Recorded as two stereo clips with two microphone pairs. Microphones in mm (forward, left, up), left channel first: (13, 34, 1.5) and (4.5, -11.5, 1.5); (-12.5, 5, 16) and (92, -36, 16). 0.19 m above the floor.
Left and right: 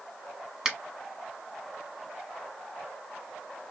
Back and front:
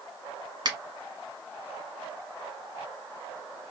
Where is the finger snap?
25° right, 1.1 m.